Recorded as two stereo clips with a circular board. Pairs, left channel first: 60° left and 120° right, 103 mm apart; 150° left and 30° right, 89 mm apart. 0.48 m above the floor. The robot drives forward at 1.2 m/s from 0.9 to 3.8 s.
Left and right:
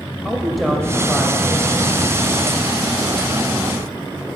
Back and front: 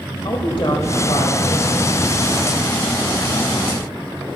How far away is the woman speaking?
About 1.8 m.